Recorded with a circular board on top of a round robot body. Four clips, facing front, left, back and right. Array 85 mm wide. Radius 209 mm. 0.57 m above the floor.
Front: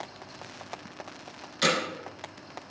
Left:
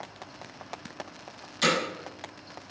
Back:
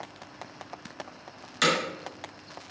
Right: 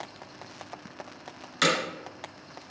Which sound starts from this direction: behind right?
Hammering, at 1.6 s.